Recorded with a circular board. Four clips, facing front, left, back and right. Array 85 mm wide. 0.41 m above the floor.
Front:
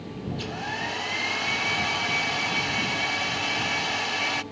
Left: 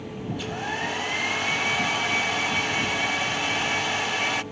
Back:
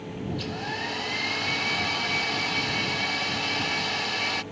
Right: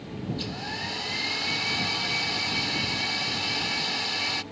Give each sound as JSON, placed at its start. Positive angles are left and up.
{"t": 0.3, "sound": "a hair dryer", "azimuth_deg": 75}